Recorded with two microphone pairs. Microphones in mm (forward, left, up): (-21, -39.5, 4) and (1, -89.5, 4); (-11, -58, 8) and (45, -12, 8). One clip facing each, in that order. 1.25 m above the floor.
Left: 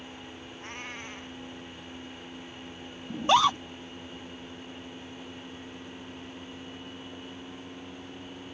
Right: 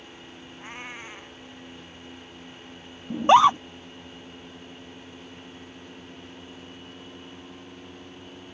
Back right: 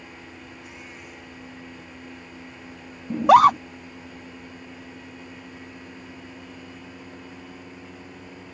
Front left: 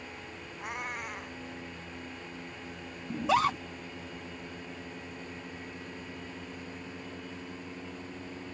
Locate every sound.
0.6 s a cat meowing: 10° left
3.1 s a scream: 125° right